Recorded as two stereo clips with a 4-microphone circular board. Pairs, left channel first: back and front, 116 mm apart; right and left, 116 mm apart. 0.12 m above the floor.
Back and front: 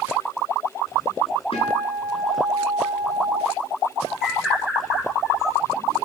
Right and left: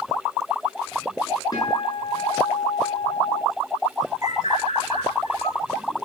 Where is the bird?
85° right, 1.4 m.